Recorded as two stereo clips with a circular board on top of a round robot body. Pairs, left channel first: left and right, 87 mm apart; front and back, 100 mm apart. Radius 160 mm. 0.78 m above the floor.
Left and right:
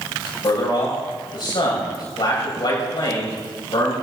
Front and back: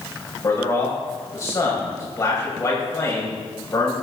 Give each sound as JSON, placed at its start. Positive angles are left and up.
{"t": 0.4, "sound": "a man speaking", "azimuth_deg": 60, "distance_m": 6.0}